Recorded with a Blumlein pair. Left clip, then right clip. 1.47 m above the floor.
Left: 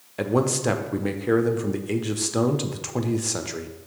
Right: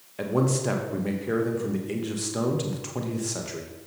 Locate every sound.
0.2 s a man speaking: 40° left, 1.2 m